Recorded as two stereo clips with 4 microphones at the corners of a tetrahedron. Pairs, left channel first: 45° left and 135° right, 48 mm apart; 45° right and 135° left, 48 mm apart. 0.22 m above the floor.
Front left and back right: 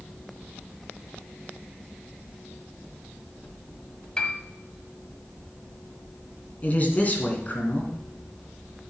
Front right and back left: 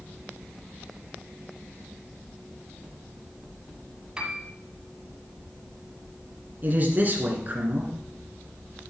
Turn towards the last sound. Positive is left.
turn(degrees=90)